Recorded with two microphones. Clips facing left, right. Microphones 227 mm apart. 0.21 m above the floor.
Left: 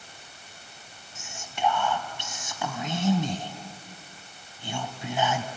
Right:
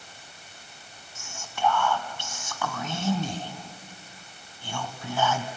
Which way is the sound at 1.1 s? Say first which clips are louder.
Even; 20° left (ahead or behind).